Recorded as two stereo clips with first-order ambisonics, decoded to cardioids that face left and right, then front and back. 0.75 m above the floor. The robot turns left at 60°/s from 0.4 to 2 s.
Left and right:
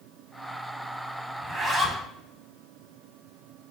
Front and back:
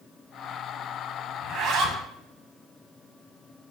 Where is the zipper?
140° right, 0.8 m; by 2.0 s straight behind, 0.8 m.